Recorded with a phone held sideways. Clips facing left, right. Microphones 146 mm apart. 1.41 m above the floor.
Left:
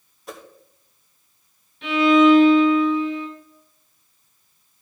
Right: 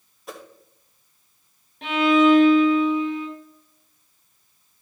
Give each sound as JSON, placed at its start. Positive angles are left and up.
{"t": 0.3, "sound": "a whoosh", "side_deg": 0, "distance_m": 0.8}
{"t": 1.8, "sound": "a violin", "side_deg": -60, "distance_m": 2.5}